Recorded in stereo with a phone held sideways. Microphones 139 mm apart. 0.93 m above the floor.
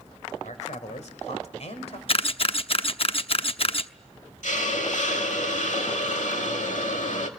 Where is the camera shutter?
45° left (ahead or behind), 0.7 m.